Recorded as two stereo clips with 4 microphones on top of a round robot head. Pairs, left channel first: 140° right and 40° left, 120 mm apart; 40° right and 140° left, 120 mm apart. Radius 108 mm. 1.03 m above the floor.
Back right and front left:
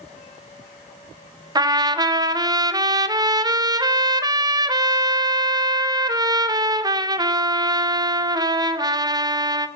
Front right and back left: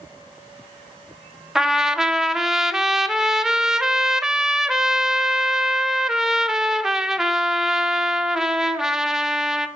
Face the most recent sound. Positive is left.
turn(degrees=60)